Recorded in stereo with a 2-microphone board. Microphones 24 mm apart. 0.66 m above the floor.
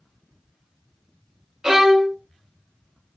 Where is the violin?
25° right (ahead or behind), 0.7 m.